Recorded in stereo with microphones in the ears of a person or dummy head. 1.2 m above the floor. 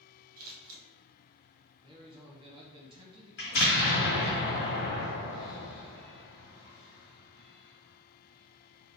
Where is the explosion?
50° left (ahead or behind), 1.5 m.